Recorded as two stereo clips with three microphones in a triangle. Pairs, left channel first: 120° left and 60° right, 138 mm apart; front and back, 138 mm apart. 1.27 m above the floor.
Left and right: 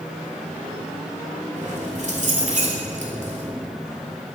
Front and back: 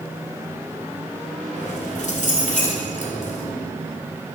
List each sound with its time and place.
1.6 s keys jangling: 30° right, 3.5 m